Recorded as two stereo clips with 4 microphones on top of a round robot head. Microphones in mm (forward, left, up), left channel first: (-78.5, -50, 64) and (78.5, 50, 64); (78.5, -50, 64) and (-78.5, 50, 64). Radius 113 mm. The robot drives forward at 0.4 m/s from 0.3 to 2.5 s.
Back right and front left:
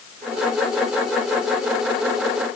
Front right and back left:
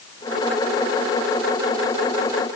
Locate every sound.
Only background noise.